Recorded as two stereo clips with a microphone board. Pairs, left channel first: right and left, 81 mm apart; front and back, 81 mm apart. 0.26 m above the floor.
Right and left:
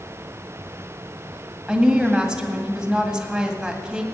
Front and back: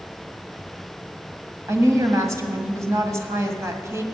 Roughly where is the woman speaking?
Behind.